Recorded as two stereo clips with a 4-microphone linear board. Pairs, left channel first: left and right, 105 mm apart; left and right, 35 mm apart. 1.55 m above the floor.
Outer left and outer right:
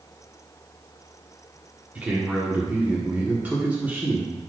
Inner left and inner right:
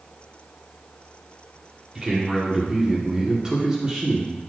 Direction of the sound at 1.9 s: 15° right (ahead or behind).